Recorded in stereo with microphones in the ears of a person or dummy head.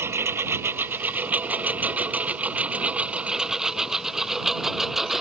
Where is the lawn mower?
10° right (ahead or behind); by 5.2 s centre (ahead or behind).